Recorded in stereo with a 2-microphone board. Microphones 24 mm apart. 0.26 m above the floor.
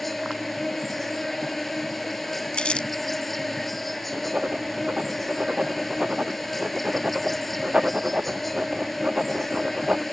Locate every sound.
0.0 s an insect: 5° left (ahead or behind)
2.5 s crumpling: 50° left (ahead or behind)
4.1 s writing: 45° right (ahead or behind)